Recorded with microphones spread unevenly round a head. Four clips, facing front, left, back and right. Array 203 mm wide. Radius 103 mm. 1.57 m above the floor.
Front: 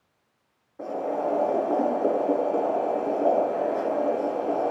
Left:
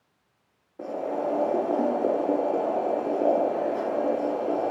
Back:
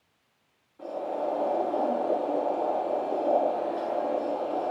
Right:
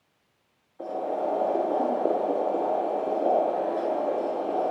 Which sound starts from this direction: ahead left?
Boiling, at 0.8 s.